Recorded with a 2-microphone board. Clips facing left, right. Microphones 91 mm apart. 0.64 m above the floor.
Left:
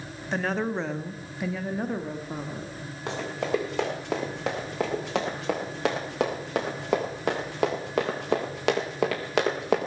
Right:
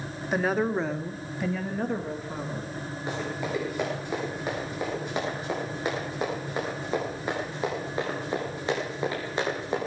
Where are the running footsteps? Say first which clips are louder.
Left 4 dB; 85° left, 9 m; by 9.9 s 80° left, 4 m.